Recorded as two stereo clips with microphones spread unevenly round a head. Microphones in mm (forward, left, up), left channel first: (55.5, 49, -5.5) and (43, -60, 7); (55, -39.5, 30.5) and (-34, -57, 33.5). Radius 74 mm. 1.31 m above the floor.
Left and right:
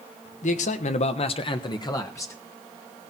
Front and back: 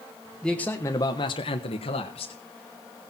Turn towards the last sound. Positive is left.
turn(degrees=20)